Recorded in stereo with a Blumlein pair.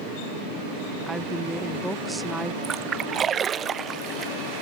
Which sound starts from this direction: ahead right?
A splash, at 2.6 s.